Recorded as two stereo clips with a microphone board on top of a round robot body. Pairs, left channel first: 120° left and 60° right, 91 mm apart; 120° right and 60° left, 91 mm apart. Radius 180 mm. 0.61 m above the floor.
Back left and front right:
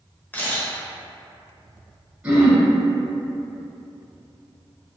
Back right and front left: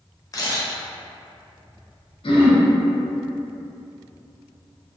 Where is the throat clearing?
135° right, 1.2 m.